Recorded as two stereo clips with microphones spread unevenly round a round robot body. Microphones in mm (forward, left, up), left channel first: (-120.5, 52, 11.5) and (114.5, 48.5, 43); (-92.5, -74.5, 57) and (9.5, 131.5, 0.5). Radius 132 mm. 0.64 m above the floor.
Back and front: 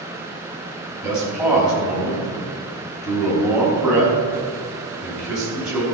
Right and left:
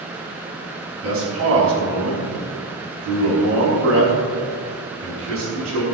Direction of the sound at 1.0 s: 85° left.